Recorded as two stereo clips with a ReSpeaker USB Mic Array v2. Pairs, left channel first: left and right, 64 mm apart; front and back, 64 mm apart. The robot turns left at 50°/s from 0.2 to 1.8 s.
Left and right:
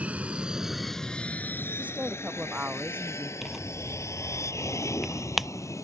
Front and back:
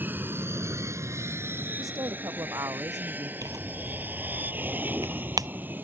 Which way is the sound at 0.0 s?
145° right.